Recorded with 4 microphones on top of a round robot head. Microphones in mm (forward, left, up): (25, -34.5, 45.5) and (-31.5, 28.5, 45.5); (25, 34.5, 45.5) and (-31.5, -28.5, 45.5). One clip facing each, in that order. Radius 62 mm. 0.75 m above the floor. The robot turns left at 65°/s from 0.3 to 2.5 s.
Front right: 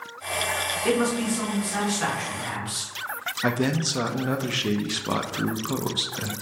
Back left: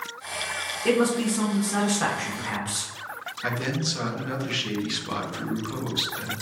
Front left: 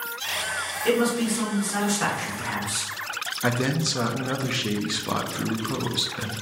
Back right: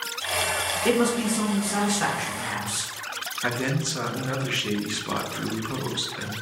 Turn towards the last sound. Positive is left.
turn(degrees=-20)